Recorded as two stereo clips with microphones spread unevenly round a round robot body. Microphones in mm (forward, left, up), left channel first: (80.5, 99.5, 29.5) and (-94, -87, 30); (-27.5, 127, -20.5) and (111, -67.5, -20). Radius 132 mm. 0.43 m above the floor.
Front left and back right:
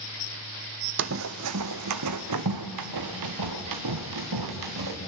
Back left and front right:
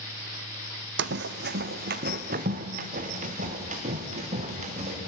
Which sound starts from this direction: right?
Running footsteps, at 1.0 s.